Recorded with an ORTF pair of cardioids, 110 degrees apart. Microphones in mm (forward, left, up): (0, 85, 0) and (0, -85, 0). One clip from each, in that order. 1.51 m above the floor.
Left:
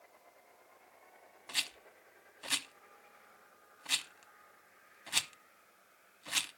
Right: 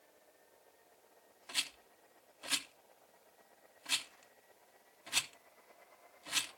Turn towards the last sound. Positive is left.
turn(degrees=15)